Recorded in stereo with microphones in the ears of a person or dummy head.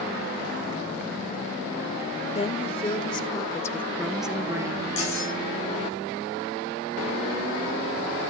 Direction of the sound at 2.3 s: 25° left (ahead or behind).